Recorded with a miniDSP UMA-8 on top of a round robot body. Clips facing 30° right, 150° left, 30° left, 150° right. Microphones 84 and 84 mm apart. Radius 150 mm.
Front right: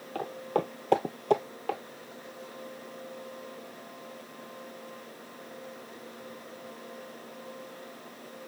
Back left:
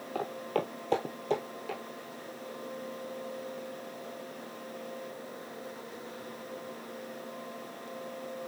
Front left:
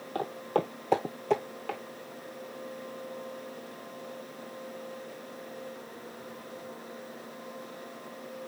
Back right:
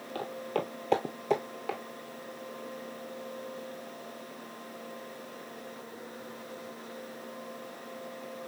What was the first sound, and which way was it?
Footsteps, 70° left.